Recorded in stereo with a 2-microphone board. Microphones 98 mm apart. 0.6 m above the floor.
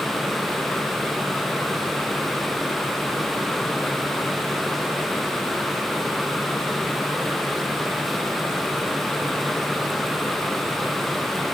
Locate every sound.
Only background noise.